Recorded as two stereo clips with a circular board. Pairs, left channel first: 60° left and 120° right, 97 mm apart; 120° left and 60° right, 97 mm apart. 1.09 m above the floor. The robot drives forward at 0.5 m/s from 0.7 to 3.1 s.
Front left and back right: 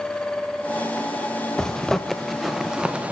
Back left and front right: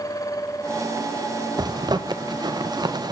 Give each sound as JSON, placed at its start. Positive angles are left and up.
{"t": 1.6, "sound": "a zipper", "azimuth_deg": -20, "distance_m": 1.3}